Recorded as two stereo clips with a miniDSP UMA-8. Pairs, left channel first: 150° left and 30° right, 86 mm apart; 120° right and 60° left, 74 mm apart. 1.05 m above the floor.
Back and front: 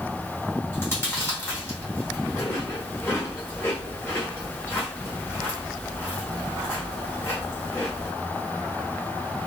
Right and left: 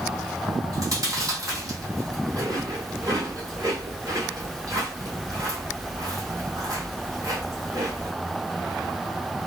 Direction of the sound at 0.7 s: 90° left.